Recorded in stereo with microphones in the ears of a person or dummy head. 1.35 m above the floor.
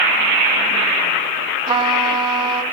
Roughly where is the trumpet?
Right.